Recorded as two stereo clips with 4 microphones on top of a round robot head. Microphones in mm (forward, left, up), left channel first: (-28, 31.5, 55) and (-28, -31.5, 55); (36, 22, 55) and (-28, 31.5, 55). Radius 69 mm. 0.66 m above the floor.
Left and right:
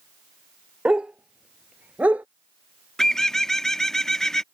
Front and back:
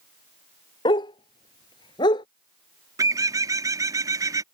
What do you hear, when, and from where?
0.8 s a dog barking: 10° right; by 2.3 s 20° right
3.0 s a bird: 170° left